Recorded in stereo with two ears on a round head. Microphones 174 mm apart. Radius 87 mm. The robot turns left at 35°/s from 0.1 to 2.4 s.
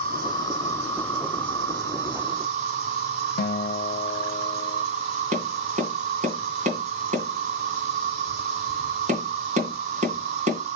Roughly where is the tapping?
Right.